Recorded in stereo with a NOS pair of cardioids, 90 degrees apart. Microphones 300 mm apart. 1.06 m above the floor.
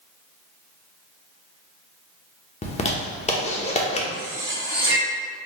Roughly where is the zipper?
Ahead.